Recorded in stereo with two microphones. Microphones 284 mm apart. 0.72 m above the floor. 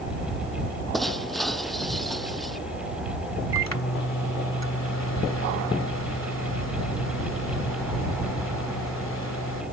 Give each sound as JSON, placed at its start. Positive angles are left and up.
{"t": 0.9, "sound": "breaking glass", "side_deg": 0}
{"t": 3.5, "sound": "a microwave", "side_deg": 65}